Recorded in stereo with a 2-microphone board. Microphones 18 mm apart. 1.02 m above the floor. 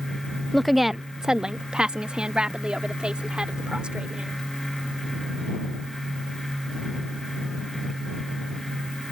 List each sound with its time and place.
0.5 s a woman speaking: 15° left (ahead or behind); by 4.4 s 85° right